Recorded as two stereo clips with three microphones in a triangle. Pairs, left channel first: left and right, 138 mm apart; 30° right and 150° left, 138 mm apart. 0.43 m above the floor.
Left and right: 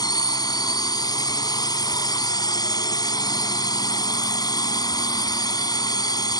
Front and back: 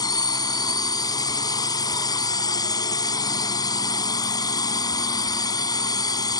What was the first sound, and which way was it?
A drone, 30° left.